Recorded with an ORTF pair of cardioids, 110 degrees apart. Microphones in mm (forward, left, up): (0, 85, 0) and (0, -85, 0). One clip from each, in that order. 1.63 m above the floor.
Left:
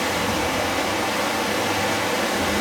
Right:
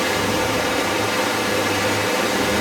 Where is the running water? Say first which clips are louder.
Right 2 dB; 5° right, 2 m.